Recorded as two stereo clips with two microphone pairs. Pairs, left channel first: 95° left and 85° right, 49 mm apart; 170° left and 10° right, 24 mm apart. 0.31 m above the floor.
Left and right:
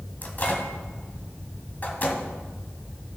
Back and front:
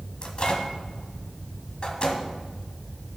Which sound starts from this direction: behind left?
A microwave, at 0.2 s.